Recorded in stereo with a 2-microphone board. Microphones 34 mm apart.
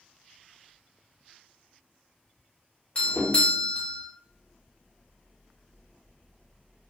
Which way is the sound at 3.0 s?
30° left (ahead or behind).